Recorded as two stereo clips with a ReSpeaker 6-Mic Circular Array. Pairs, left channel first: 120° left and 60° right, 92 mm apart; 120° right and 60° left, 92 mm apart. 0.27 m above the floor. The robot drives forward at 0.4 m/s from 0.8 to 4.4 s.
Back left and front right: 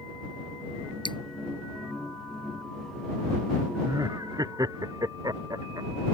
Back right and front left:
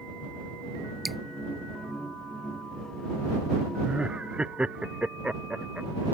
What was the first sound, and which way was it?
Dripping, 150° left.